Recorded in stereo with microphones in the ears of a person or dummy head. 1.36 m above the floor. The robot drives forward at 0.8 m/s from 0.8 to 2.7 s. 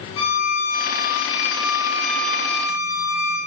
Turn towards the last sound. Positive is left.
turn(degrees=25)  # may be behind; listen again after turning